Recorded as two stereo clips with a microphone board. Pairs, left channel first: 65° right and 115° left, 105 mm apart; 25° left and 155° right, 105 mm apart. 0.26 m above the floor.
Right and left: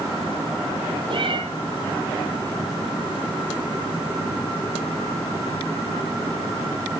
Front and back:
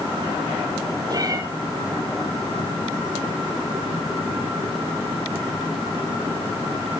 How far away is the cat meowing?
About 2.5 m.